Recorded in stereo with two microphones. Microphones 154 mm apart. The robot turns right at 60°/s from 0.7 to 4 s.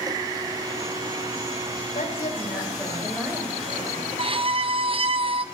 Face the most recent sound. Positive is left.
turn(degrees=-40)  # may be behind; listen again after turning